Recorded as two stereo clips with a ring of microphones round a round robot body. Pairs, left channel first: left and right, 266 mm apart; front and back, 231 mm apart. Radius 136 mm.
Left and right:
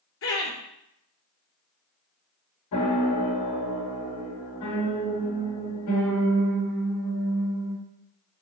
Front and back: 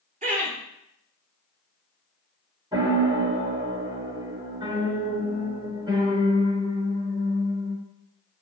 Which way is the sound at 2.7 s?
110° left.